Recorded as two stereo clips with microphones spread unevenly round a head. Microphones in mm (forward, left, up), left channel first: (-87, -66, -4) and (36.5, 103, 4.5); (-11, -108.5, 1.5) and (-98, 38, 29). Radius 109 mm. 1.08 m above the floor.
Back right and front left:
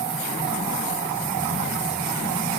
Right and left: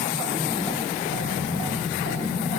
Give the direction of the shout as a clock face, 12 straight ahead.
No shout in this recording.